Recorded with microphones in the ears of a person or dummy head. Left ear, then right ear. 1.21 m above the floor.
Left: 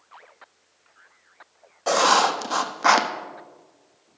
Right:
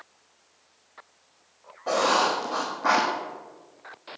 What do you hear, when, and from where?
1.9 s writing: 75° left (ahead or behind), 1.4 m